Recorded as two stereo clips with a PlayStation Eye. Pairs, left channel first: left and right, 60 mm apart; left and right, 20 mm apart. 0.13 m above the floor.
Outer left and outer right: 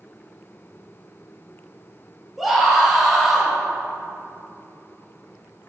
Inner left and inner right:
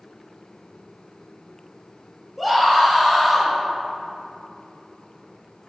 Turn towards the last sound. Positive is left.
turn(degrees=-5)  # may be behind; listen again after turning